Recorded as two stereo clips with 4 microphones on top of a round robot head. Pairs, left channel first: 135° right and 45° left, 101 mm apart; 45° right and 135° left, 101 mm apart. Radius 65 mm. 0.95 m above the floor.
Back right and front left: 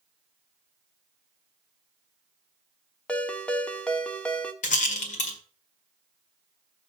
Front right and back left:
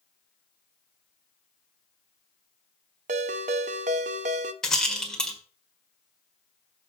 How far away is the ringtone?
About 0.5 m.